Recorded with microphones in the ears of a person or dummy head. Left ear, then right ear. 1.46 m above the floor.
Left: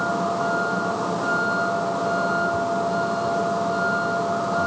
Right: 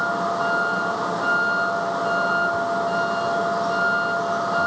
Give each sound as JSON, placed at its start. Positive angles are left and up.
{"t": 0.0, "sound": "a vehicle", "side_deg": -65}